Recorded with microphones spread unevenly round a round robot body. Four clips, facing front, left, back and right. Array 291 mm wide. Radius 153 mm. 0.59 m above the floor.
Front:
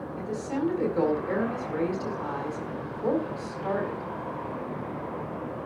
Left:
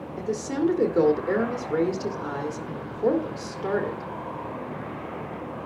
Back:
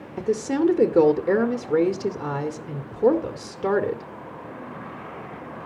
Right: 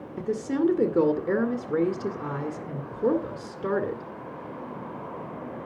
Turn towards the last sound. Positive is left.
turn(degrees=-160)